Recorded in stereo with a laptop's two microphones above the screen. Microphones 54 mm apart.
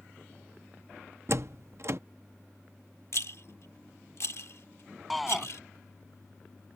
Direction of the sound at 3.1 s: 60° left (ahead or behind).